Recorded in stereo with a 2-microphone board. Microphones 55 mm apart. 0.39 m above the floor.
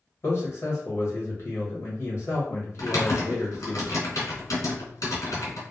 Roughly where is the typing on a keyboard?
Left.